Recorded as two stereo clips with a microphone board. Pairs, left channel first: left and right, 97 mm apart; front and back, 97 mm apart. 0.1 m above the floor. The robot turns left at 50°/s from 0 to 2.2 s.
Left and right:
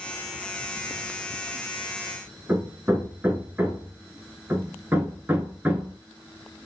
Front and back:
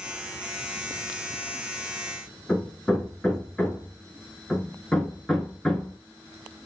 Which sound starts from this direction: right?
Hammering, at 2.5 s.